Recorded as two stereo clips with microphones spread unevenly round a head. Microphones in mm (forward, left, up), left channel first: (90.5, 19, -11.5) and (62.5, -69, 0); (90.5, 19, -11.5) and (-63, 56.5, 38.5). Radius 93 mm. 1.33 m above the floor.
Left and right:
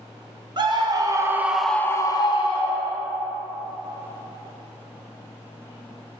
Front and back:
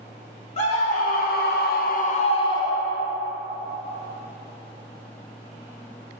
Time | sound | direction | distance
0.6 | a scream | 65° right | 1.3 m